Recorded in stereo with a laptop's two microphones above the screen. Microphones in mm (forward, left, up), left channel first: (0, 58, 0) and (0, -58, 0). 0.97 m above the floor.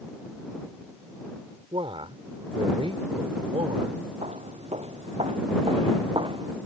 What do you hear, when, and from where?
1.7 s a man speaking: 50° right (ahead or behind)
4.2 s footsteps: 65° right (ahead or behind); by 6.6 s 40° right (ahead or behind)